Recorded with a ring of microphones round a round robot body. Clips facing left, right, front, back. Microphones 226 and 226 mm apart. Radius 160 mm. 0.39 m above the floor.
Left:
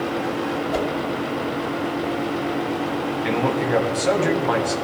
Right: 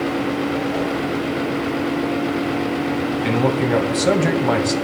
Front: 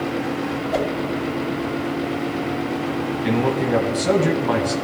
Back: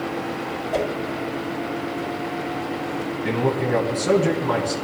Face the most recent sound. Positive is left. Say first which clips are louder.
# right 3 dB, front 2 dB
turn(degrees=-55)